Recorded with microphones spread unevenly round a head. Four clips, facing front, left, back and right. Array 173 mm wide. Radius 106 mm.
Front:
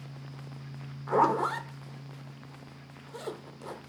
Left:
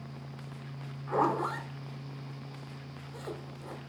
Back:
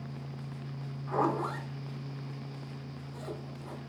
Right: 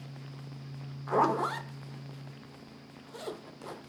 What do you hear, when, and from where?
1.1 s a zipper: 10° right, 0.9 m